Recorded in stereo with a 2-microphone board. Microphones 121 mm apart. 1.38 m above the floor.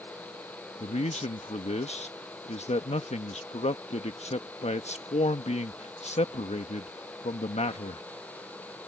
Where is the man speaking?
65° left (ahead or behind).